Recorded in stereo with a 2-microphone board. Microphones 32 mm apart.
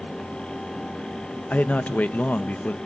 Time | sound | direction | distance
1.5 | a man speaking | 55° left (ahead or behind) | 0.8 m